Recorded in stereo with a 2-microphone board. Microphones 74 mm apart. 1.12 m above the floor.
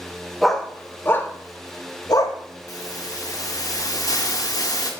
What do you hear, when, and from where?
0.4 s a dog barking: centre (ahead or behind), 1.0 m; by 2.4 s 65° left (ahead or behind), 1.6 m
2.7 s a hiss: 55° left (ahead or behind), 1.8 m